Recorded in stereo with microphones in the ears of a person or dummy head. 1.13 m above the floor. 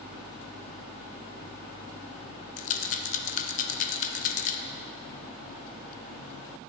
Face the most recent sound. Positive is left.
turn(degrees=30)  # may be behind; listen again after turning